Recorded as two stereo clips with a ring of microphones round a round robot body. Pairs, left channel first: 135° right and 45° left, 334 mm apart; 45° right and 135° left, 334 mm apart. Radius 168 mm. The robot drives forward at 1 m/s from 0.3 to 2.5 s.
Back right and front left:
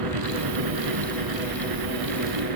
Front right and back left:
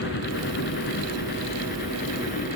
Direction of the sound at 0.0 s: 15° left.